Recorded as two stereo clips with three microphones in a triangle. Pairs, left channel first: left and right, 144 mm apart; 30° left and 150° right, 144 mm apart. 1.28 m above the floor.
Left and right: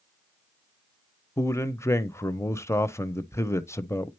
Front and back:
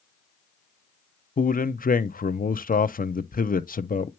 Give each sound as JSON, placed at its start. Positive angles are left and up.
{"t": 1.4, "sound": "a man speaking", "azimuth_deg": 20, "distance_m": 0.5}